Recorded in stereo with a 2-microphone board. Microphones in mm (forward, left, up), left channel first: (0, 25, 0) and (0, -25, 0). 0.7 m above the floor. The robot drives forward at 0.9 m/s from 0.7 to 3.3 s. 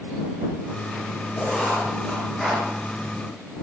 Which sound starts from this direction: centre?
Writing, at 1.4 s.